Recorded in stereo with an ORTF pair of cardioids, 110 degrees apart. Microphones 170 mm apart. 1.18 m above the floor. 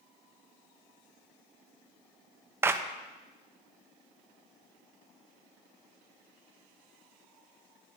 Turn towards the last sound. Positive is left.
turn(degrees=-15)